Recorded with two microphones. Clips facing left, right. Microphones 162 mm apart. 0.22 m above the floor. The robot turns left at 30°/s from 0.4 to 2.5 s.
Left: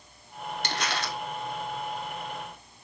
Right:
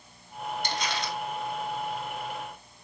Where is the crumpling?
75° left (ahead or behind), 0.8 m; by 1.2 s 65° left (ahead or behind), 0.8 m.